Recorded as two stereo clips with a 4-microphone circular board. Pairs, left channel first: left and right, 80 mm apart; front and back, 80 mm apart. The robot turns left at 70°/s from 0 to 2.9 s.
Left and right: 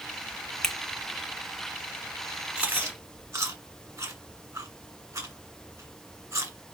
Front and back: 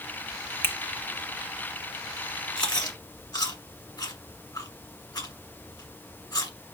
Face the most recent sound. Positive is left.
turn(degrees=-35)